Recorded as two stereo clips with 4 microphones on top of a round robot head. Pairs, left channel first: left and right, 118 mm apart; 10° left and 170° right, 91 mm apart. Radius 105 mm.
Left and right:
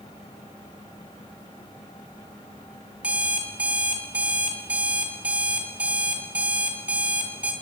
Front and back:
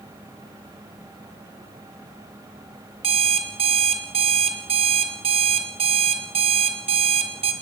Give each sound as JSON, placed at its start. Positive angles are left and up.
{"t": 3.0, "sound": "an alarm clock", "azimuth_deg": -170, "distance_m": 2.5}